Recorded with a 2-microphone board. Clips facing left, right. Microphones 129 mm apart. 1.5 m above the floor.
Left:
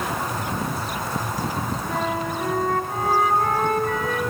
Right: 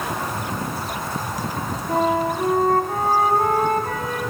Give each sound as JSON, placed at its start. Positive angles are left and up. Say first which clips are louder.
{"t": 1.9, "sound": "a flute", "louder": "right 8 dB", "side_deg": -35, "distance_m": 1.9}